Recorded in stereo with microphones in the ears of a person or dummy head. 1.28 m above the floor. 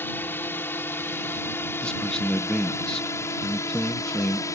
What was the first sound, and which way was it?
A drone, 15° left (ahead or behind).